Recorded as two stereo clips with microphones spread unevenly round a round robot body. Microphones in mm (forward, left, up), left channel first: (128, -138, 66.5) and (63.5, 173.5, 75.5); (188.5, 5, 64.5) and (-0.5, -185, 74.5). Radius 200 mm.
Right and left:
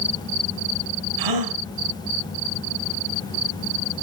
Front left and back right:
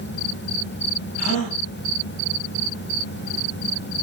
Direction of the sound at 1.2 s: 115° left.